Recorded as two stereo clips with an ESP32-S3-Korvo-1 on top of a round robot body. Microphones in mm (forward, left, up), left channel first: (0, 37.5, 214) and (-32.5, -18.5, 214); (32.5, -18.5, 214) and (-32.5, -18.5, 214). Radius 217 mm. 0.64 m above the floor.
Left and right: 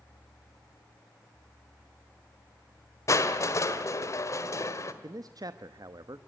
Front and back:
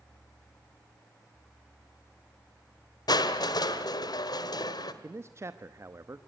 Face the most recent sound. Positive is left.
turn(degrees=-135)